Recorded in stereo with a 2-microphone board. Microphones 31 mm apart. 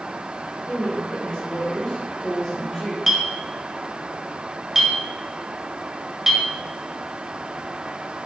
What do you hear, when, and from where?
0.7 s a woman speaking: 35° left (ahead or behind), 1.8 m; by 3.0 s 5° right (ahead or behind), 1.5 m
3.1 s a clink: 10° right (ahead or behind), 0.7 m